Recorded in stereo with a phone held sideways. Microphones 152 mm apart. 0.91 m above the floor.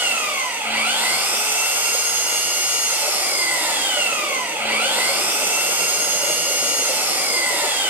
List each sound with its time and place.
0.0 s an engine running: 15° right (ahead or behind), 2.5 m